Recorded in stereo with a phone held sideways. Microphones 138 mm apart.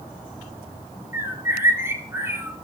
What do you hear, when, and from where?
1.1 s a bird: 20° right (ahead or behind), 4 m